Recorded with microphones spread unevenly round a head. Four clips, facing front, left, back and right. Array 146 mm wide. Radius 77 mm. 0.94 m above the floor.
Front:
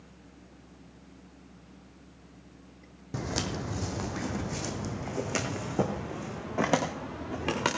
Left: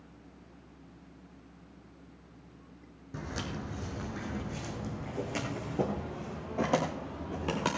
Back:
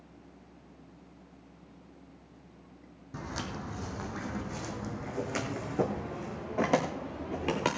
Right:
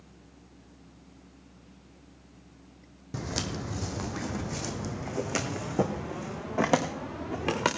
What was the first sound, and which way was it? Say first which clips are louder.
Footsteps: right 4 dB, front 5 dB; 65° right.